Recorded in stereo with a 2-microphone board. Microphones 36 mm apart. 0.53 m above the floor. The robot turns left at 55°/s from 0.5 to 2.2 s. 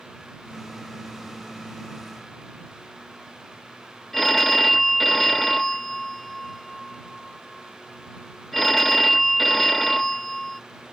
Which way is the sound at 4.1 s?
5° left (ahead or behind).